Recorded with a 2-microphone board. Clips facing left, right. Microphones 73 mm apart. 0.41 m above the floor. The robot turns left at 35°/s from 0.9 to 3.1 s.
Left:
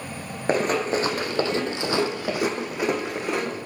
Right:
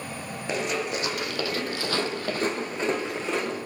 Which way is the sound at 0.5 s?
50° left (ahead or behind).